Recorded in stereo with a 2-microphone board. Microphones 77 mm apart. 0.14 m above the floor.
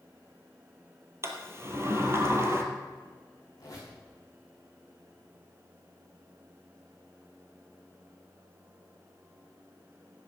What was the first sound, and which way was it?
A sliding door, 35° right (ahead or behind).